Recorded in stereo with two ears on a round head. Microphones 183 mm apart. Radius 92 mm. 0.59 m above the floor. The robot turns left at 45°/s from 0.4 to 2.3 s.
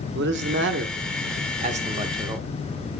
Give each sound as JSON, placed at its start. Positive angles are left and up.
{"t": 0.1, "sound": "a man speaking", "azimuth_deg": -80, "distance_m": 1.1}